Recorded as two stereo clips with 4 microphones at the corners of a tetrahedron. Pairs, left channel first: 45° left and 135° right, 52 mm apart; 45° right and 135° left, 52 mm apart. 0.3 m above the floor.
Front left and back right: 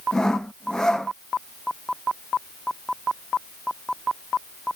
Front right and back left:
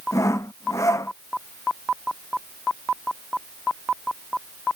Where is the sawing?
35° right.